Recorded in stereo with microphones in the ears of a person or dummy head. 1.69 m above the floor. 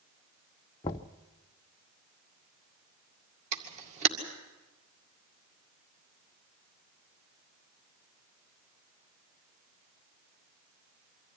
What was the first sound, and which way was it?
Knocking, 15° left (ahead or behind).